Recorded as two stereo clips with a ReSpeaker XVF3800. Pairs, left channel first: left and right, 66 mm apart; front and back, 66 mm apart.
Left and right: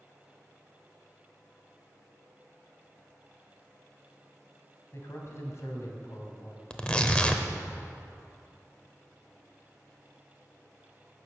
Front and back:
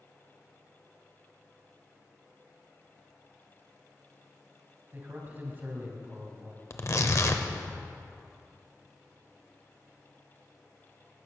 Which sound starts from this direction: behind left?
A man speaking, at 4.9 s.